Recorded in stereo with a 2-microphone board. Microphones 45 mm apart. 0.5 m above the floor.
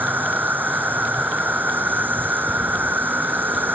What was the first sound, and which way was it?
An insect, 45° right (ahead or behind).